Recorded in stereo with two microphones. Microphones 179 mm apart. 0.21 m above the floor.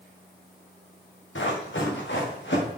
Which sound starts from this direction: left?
Running footsteps, at 1.4 s.